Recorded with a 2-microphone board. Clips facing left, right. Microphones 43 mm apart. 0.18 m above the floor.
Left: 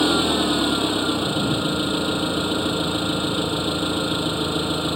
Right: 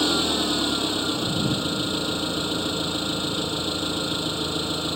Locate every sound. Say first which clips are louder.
0.0 s an engine running: left 4 dB; 15° left (ahead or behind)